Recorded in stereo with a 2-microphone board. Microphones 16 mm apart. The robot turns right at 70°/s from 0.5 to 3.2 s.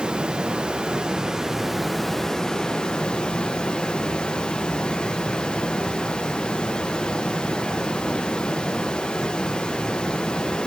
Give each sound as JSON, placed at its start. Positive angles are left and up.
{"t": 0.0, "sound": "running water", "azimuth_deg": -95, "distance_m": 0.9}